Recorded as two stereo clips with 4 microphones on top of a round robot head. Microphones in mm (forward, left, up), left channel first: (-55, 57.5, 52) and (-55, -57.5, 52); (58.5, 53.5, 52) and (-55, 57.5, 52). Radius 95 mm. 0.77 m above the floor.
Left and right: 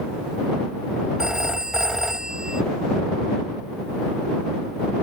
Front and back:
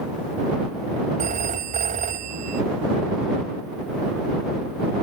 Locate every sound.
1.2 s a phone ringing: 175° right